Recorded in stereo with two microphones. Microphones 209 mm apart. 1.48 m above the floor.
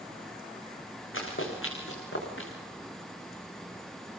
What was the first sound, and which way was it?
Running footsteps, 70° left (ahead or behind).